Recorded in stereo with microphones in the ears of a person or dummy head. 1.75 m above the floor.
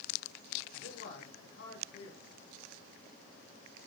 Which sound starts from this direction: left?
A man speaking, at 0.7 s.